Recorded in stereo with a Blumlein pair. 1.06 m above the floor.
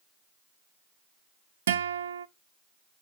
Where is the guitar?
65° right, 0.6 m.